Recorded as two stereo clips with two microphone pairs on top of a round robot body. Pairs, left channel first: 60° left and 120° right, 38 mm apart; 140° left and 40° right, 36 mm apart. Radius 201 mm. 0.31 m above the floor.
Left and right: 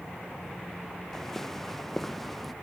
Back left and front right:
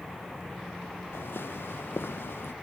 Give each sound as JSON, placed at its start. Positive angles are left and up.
{"t": 1.1, "sound": "footsteps", "azimuth_deg": 140}